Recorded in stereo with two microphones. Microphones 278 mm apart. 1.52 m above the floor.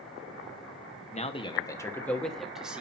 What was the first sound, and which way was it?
A man speaking, 25° left (ahead or behind).